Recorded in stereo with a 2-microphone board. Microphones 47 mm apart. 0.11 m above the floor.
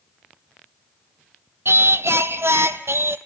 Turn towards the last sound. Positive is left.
turn(degrees=-65)  # may be behind; listen again after turning